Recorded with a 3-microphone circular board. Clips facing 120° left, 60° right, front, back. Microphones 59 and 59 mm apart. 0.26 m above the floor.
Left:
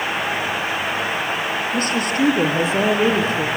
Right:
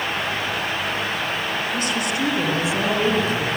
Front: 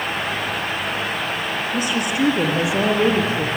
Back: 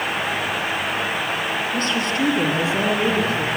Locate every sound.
1.7 s a woman speaking: 75° left, 5.5 m; by 3.5 s 70° left, 4 m